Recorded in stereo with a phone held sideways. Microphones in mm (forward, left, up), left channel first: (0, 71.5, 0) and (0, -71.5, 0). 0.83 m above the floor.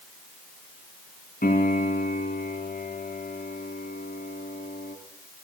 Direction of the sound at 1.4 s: 80° left.